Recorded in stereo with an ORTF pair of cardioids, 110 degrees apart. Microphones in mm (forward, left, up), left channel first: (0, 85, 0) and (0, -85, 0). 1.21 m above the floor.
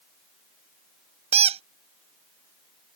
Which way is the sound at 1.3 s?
35° right.